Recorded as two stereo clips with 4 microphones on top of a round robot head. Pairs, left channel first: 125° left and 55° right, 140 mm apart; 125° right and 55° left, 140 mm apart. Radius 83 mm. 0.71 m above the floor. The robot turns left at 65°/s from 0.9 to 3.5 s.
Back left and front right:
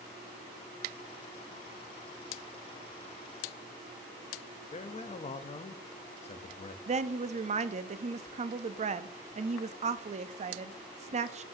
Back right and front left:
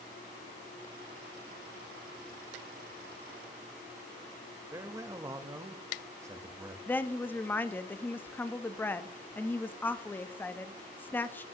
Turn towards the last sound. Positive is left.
turn(degrees=-50)